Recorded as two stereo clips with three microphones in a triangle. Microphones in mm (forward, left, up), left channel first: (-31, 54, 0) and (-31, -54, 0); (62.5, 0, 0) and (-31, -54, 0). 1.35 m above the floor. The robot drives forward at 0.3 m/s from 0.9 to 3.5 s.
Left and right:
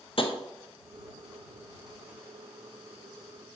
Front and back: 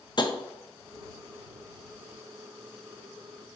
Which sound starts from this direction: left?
Tapping, at 0.2 s.